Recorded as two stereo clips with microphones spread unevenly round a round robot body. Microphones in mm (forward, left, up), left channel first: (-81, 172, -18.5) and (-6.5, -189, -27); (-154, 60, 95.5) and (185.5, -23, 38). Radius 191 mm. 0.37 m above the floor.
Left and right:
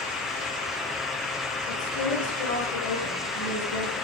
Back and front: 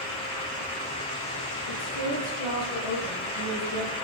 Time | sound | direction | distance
1.7 | a woman speaking | 130° left | 7.5 m